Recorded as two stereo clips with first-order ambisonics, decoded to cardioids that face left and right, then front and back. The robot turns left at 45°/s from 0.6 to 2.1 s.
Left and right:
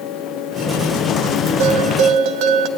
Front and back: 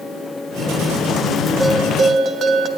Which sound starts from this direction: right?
A bell, at 1.6 s.